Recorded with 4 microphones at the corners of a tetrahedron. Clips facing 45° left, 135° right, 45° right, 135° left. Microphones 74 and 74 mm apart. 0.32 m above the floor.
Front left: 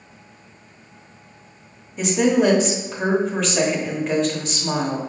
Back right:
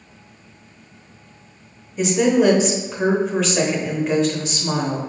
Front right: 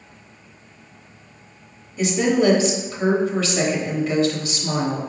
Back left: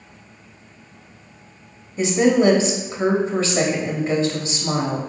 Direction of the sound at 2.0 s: 140° left.